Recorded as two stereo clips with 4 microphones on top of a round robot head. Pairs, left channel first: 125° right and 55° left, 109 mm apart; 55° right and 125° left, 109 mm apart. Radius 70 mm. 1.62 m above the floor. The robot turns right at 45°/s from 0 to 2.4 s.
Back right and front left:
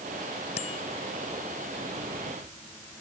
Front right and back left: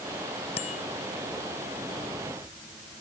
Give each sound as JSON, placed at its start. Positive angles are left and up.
{"t": 0.6, "sound": "a bicycle bell", "azimuth_deg": -95}